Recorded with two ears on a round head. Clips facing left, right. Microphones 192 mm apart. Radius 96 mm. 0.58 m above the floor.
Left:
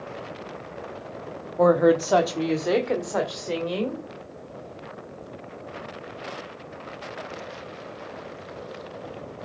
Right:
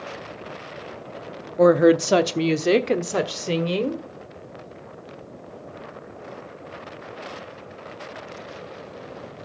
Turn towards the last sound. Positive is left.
turn(degrees=-40)  # may be behind; listen again after turning